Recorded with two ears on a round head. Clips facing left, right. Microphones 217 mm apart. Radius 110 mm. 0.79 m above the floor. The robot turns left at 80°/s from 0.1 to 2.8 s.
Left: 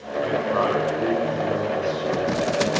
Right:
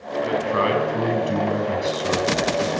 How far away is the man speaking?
About 7.5 m.